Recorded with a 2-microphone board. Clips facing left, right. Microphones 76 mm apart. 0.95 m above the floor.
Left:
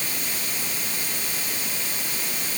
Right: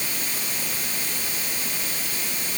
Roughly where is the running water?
I don't hear running water.